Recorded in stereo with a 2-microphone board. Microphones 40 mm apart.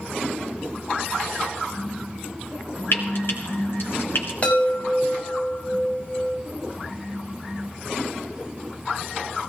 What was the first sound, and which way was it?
Frying, 70° left (ahead or behind).